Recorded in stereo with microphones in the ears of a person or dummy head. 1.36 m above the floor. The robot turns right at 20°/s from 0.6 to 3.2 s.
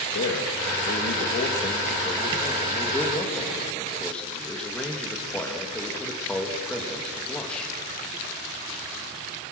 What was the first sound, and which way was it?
A man speaking, 120° left.